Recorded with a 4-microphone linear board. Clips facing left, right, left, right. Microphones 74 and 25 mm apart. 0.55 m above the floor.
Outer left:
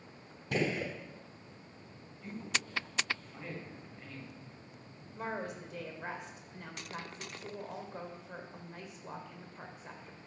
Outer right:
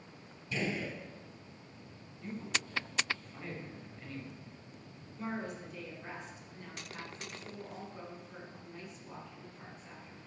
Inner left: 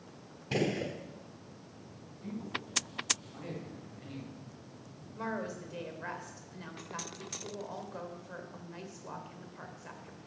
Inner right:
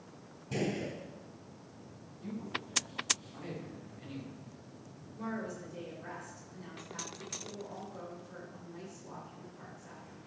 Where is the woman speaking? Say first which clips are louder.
Outer left 1 dB, inner left 2 dB; 65° left (ahead or behind), 1.6 m.